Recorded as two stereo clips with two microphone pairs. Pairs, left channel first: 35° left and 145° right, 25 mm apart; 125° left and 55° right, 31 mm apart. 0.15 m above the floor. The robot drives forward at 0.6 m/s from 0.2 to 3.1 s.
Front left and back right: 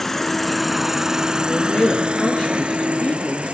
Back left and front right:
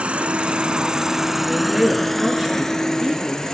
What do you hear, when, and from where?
0.0 s an insect: 40° right, 0.8 m; by 3.5 s 165° right, 1.5 m
1.4 s a man speaking: 15° left, 3 m; by 3.5 s 20° left, 2.5 m